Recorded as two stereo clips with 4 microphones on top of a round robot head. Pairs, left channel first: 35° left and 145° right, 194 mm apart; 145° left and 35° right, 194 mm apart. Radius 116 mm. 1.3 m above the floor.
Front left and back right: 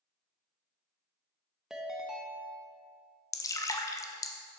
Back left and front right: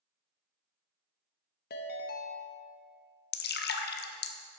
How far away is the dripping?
About 0.8 m.